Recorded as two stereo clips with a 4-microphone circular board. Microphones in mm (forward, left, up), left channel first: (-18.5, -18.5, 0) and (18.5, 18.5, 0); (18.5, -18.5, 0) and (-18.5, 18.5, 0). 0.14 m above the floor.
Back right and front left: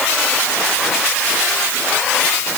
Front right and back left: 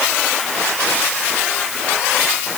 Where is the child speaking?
No child speaking in this recording.